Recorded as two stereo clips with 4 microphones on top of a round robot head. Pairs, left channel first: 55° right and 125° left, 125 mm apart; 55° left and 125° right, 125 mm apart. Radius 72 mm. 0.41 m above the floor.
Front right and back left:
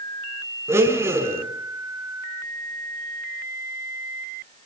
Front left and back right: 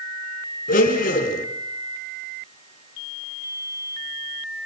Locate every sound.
0.7 s a blender: 55° left, 4.5 m